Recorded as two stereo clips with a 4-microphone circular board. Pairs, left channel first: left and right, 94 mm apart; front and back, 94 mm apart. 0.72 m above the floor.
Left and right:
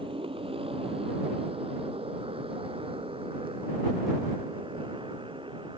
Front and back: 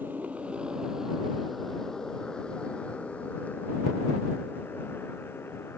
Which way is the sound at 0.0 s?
110° right.